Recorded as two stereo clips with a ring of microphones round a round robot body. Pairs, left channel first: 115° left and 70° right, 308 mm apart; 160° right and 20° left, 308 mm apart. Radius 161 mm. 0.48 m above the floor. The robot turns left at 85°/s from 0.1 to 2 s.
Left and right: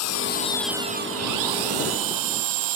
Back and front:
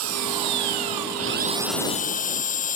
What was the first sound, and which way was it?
An engine running, 70° left.